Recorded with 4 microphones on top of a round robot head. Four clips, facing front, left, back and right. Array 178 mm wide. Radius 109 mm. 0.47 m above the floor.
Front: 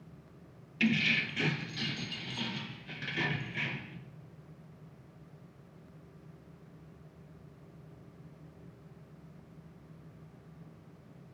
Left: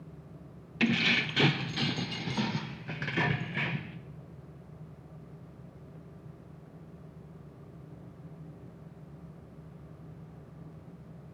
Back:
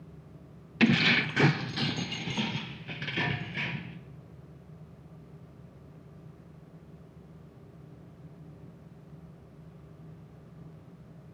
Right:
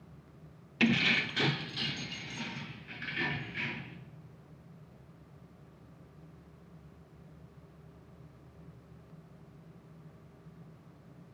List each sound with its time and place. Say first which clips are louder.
0.8 s keys jangling: even, back 6 dB; 175° right, 0.8 m; by 4.0 s 100° left, 1.7 m